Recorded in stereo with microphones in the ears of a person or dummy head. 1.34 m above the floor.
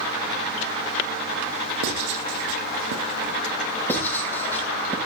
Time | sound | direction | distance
1.8 | writing | 70° right (ahead or behind) | 2.5 m
3.9 | writing | 10° left (ahead or behind) | 7 m